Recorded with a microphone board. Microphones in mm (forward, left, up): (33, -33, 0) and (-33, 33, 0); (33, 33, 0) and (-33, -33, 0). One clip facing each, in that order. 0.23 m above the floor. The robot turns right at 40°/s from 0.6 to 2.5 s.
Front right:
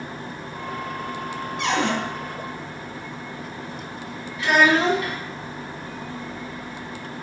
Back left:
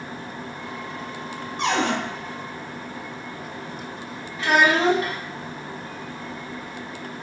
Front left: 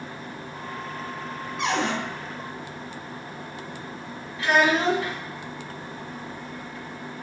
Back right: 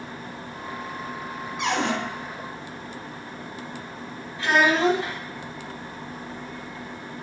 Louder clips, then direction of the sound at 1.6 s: Back left 1 dB, even; 140° left.